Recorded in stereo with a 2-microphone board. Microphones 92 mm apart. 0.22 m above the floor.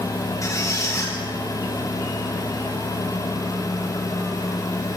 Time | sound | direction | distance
0.4 | a squeak | 35° left (ahead or behind) | 9 m